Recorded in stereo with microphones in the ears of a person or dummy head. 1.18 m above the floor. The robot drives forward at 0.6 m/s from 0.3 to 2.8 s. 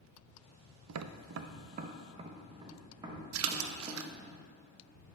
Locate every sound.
0.9 s tapping: 75° right (ahead or behind), 0.5 m; by 4.3 s 25° right (ahead or behind), 1.1 m
3.3 s a splash: 65° right (ahead or behind), 0.7 m